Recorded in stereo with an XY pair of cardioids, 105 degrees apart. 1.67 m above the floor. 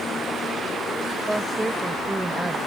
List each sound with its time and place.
1.3 s a woman speaking: 10° right; by 2.6 s 15° right